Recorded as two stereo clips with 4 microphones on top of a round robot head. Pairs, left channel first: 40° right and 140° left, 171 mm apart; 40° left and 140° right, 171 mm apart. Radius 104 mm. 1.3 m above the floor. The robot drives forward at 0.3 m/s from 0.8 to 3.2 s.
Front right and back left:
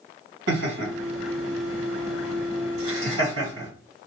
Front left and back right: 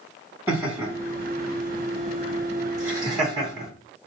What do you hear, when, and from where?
0.5 s laughter: 140° left, 2.0 m; by 3.7 s 150° left, 2.5 m